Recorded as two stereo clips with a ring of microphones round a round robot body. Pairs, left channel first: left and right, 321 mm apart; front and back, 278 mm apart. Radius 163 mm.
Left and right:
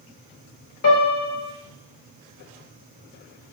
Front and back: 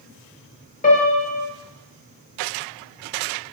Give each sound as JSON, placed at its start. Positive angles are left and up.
{"t": 0.8, "sound": "a piano", "azimuth_deg": 55, "distance_m": 0.7}